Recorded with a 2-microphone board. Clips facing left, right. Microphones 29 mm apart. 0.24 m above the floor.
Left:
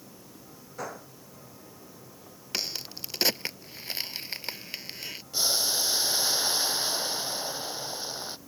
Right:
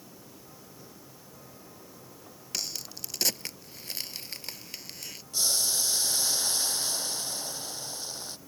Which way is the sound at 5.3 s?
20° left (ahead or behind).